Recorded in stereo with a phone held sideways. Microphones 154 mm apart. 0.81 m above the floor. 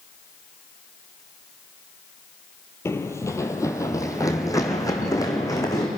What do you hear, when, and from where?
2.9 s running footsteps: 15° left (ahead or behind), 1.4 m; by 5.9 s 25° left (ahead or behind), 3.5 m